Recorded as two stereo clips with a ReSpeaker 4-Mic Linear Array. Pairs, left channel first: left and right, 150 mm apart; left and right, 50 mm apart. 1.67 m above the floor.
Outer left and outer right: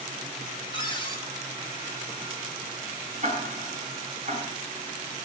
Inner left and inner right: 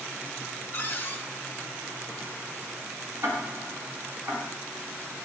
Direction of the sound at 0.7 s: 35° left (ahead or behind).